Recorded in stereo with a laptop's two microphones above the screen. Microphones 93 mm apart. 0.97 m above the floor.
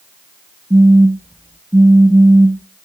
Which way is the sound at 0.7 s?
20° right (ahead or behind).